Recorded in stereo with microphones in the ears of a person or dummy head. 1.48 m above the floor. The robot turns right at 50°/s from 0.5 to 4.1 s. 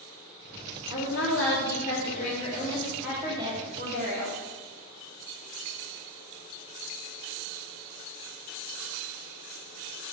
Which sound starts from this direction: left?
A woman speaking, at 0.9 s.